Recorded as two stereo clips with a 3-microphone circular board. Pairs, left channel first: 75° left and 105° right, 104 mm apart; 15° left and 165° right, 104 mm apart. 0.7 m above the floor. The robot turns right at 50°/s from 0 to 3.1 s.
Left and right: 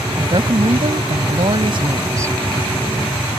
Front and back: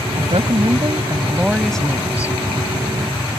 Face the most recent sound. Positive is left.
turn(degrees=0)